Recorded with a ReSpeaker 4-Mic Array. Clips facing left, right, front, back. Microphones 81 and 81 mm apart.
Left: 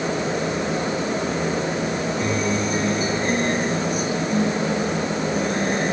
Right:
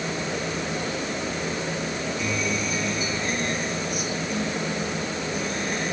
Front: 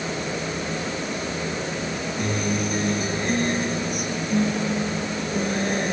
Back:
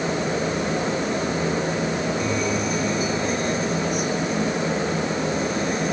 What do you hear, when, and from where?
2.2 s a guitar: 35° left